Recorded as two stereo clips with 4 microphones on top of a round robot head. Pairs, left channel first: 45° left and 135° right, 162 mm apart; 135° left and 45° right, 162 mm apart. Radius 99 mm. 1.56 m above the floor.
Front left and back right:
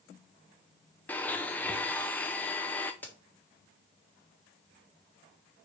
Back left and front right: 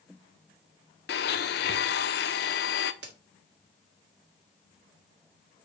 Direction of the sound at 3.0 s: 30° right.